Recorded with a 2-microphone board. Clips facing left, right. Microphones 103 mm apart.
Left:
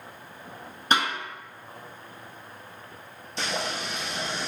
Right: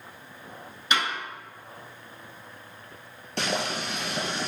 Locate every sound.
0.9 s a snare drum: 40° left (ahead or behind), 2 m
3.4 s boiling: 60° right (ahead or behind), 1.5 m